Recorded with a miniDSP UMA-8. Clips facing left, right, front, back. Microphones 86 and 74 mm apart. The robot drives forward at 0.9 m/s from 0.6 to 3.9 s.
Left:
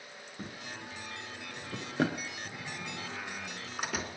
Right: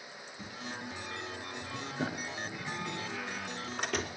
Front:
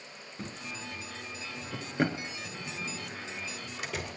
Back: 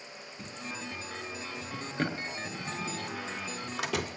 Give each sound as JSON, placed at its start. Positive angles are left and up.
{"t": 0.4, "sound": "a drawer", "azimuth_deg": 55, "distance_m": 3.5}
{"t": 2.5, "sound": "a door slam", "azimuth_deg": 170, "distance_m": 2.0}